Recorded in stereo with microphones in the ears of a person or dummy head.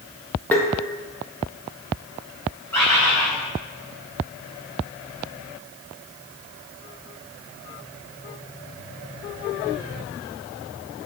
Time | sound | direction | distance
0.5 | tapping | 10° left (ahead or behind) | 0.8 m
2.7 | a bird | 10° left (ahead or behind) | 3 m